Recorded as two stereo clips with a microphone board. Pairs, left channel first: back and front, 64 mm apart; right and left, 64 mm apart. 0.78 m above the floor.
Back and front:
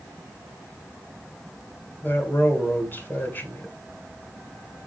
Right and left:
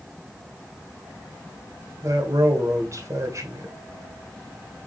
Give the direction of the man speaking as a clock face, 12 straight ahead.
8 o'clock.